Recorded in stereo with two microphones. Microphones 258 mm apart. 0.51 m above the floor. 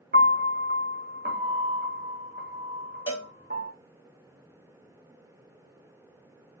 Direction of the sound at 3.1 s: 15° left (ahead or behind).